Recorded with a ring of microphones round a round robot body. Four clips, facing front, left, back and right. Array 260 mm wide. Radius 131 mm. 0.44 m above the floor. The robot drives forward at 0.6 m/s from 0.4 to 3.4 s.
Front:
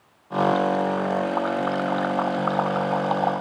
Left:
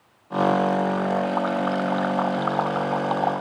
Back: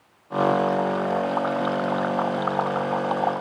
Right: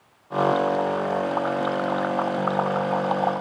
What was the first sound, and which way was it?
Only background noise.